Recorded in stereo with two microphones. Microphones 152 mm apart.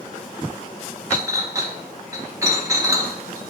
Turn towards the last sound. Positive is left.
turn(degrees=-20)  # may be behind; listen again after turning